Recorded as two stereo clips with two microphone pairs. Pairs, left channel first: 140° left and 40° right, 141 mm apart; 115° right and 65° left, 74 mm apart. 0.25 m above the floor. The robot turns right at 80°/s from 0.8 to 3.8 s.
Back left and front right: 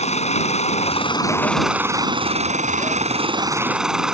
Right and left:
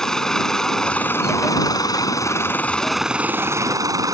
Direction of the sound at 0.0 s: 165° left.